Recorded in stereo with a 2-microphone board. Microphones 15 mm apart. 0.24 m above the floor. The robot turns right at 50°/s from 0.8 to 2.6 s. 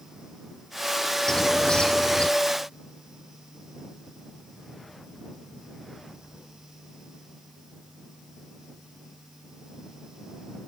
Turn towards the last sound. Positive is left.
turn(degrees=100)